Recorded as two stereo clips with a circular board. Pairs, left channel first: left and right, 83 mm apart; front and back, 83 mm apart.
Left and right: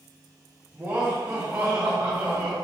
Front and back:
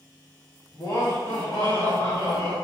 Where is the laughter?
25° right, 1.3 m.